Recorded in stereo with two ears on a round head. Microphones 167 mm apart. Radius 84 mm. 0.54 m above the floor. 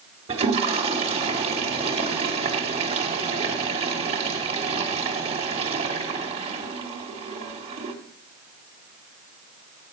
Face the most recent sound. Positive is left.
turn(degrees=-30)  # may be behind; listen again after turning